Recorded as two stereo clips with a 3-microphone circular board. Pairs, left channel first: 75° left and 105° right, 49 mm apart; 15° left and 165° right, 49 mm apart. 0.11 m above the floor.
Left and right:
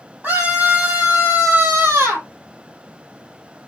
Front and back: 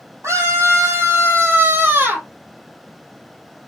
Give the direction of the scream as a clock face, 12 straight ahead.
5 o'clock.